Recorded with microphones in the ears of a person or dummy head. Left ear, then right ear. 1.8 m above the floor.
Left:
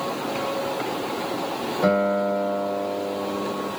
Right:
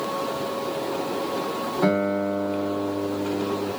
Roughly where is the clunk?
No clunk in this recording.